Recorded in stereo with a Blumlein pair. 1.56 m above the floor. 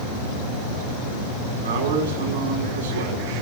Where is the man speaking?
60° right, 4.5 m.